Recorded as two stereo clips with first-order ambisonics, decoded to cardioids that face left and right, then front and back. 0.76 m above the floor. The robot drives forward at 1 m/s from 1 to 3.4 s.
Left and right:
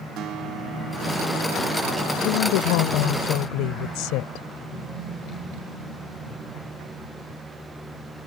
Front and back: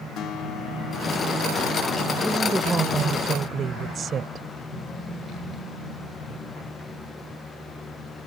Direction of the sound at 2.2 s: 90° left.